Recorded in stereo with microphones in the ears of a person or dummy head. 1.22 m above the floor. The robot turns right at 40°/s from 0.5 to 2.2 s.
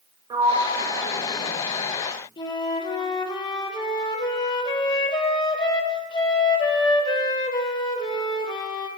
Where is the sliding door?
20° right (ahead or behind), 0.9 m; by 1.9 s 75° right (ahead or behind), 0.9 m.